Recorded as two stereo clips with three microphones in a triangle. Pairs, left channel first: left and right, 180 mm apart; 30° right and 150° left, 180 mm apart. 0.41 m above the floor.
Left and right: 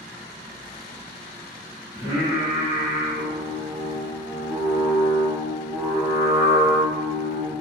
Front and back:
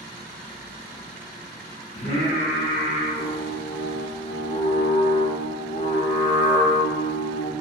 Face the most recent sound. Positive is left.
turn(degrees=-20)